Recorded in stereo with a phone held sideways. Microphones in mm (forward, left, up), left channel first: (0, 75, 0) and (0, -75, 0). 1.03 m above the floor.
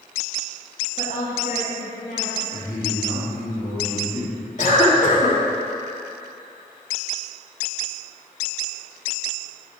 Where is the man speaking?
60° left (ahead or behind), 2 m.